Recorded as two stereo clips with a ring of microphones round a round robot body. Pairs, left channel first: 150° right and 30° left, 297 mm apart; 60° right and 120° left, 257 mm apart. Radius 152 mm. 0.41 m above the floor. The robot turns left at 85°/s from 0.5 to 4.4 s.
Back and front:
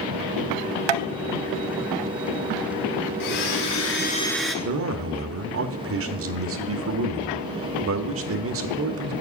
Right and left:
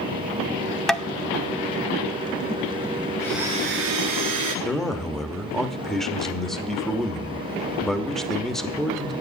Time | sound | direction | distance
0.9 | tapping | 30° left | 0.6 m
3.2 | a blender | 140° right | 1.3 m
4.7 | a man speaking | 30° left | 1.0 m